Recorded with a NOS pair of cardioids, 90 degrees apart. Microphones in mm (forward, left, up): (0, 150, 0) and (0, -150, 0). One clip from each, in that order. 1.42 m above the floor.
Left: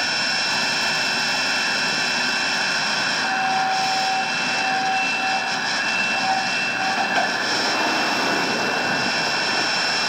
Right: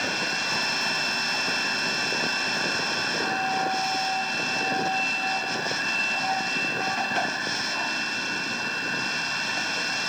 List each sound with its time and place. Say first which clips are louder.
0.0 s a machine running: left 5 dB; 35° left